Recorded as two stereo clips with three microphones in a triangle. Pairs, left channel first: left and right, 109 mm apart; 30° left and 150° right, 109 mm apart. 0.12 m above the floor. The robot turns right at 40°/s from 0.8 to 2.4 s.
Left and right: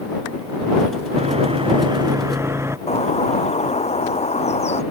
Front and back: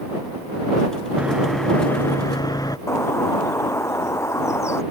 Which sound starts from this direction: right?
Sawing, at 1.2 s.